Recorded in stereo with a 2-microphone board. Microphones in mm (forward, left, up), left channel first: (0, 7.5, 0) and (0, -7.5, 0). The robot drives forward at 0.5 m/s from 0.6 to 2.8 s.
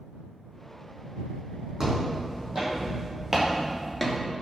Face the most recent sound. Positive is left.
turn(degrees=10)  # may be behind; listen again after turning